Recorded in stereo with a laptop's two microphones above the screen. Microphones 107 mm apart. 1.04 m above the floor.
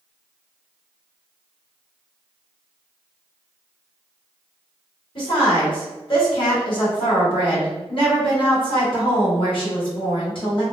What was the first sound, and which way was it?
A woman speaking, 55° left (ahead or behind).